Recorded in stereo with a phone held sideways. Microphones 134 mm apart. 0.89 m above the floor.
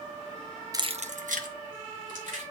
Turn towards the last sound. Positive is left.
turn(degrees=-85)